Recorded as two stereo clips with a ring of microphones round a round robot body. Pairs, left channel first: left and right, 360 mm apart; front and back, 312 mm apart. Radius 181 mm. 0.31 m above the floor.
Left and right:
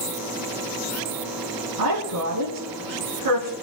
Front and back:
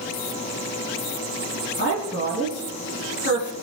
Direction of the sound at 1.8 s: 60° right.